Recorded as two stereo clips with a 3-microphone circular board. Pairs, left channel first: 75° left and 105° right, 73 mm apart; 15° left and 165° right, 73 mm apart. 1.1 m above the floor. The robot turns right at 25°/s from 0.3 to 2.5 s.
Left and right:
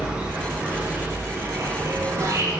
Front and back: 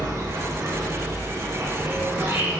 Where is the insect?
170° right, 0.7 m; by 2.6 s 115° right, 0.7 m.